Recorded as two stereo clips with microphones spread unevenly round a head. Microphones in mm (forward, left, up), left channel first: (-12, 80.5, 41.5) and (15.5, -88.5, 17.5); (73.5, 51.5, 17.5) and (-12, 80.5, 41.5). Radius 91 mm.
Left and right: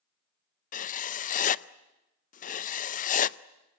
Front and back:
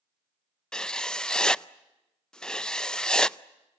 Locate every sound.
0.7 s writing: 55° left, 0.6 m